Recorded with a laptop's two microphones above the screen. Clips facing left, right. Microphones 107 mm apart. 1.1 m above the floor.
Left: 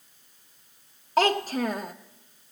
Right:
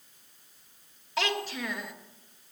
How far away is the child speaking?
About 0.8 m.